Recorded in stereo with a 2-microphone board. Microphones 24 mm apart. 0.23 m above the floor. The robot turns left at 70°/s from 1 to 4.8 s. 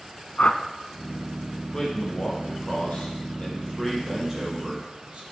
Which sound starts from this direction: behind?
A man speaking, at 1.7 s.